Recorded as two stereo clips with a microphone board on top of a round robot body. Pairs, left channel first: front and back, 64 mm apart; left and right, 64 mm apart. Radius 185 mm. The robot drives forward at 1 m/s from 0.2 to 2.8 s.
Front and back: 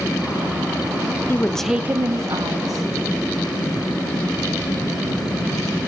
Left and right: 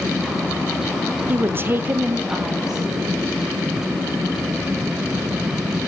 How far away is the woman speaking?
About 0.7 m.